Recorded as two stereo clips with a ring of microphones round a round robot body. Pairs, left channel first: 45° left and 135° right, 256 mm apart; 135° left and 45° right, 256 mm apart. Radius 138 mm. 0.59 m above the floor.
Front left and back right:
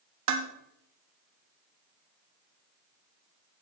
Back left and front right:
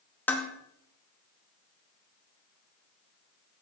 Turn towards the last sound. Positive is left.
turn(degrees=-140)